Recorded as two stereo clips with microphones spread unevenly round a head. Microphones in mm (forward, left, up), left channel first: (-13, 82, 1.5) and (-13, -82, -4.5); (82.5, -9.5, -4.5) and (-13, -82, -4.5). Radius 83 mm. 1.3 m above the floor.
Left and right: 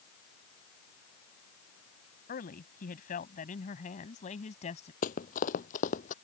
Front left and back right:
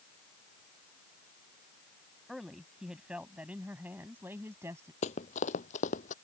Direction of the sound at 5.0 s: 55° left.